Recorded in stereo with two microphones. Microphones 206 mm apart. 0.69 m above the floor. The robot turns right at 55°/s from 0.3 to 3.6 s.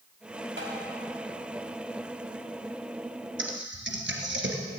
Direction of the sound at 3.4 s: 80° right.